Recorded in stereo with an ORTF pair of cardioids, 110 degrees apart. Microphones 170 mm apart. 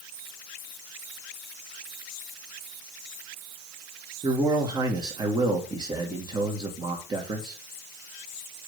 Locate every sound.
4.2 s a man speaking: 25° right, 2.5 m